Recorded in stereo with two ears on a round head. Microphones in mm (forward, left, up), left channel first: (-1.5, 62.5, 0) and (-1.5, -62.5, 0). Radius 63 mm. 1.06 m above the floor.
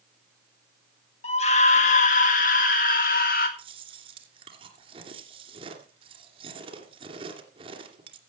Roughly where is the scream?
Left.